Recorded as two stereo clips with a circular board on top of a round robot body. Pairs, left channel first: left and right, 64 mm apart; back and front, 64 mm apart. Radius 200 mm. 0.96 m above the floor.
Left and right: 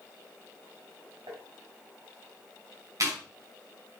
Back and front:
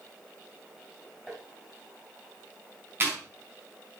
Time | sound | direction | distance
1.3 | tapping | 80° right | 2 m
3.0 | chewing | 55° right | 5 m